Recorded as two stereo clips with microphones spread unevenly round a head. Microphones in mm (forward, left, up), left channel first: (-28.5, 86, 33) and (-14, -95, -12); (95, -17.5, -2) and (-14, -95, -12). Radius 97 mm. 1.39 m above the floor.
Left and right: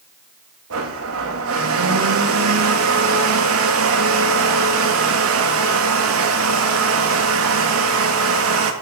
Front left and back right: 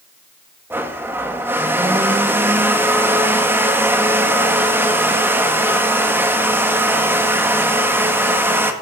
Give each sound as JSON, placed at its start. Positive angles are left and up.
{"t": 0.7, "sound": "a blender", "azimuth_deg": -70, "distance_m": 1.7}